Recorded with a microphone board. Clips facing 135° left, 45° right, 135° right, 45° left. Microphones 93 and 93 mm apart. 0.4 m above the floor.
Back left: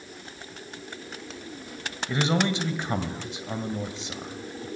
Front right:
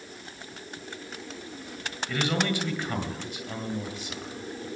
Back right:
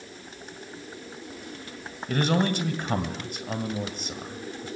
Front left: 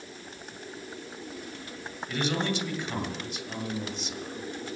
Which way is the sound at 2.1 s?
160° right.